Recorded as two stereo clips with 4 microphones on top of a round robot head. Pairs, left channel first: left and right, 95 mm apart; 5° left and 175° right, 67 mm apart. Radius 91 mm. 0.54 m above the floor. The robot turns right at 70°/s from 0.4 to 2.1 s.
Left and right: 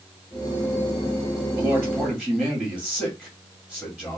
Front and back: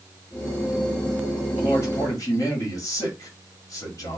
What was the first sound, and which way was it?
A man speaking, 25° right.